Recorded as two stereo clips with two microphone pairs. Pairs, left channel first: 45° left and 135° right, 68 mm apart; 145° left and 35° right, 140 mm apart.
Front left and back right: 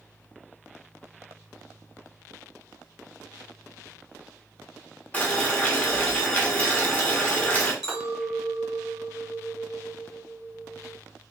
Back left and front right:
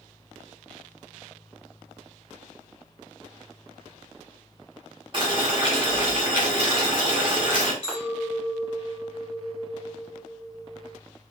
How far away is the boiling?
About 0.9 m.